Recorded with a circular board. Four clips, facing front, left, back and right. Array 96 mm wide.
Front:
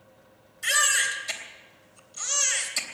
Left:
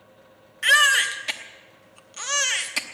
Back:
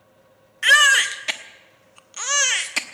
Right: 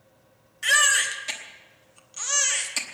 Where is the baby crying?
165° left, 0.9 m.